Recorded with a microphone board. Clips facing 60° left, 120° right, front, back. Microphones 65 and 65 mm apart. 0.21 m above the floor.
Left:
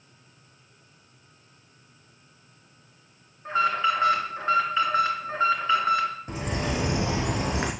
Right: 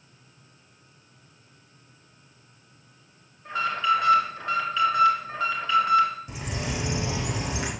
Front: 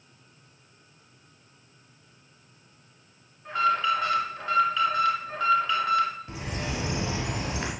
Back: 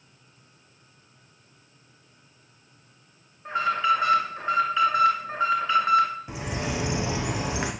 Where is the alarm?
115° left, 3 m.